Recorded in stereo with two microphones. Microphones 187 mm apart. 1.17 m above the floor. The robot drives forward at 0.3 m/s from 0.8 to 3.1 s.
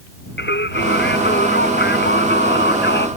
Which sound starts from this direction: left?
Singing, at 0.4 s.